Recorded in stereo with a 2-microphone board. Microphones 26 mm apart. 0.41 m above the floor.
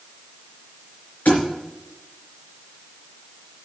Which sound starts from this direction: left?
A thud, at 1.2 s.